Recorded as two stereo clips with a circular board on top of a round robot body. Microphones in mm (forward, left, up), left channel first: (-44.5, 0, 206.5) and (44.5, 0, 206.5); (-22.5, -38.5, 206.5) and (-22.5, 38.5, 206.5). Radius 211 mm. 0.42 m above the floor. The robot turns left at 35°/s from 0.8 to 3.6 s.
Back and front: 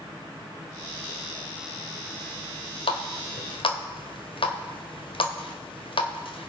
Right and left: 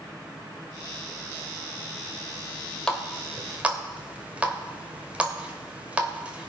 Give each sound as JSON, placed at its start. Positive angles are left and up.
{"t": 2.9, "sound": "a running tap", "azimuth_deg": -170, "distance_m": 1.8}